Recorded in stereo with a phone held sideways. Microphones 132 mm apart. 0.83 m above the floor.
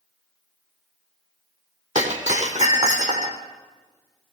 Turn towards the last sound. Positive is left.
turn(degrees=-65)  # may be behind; listen again after turning